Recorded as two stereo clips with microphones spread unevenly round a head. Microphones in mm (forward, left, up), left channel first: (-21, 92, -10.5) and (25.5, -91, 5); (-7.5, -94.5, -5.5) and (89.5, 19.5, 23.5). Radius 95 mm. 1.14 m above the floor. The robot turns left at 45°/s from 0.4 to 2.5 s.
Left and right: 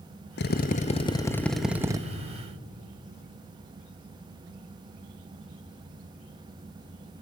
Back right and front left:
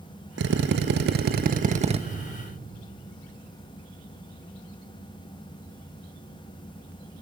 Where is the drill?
70° left, 1.2 m; by 2.0 s 5° right, 1.2 m.